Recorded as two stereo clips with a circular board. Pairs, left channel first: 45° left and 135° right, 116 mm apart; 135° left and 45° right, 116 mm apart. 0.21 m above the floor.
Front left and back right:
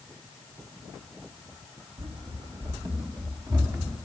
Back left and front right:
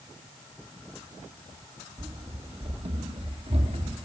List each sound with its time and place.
2.0 s running footsteps: 100° right, 2 m; by 4.0 s 75° right, 5 m